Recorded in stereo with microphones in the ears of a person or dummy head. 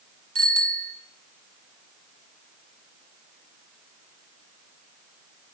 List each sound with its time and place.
0.3 s a bicycle bell: 45° right (ahead or behind), 2.5 m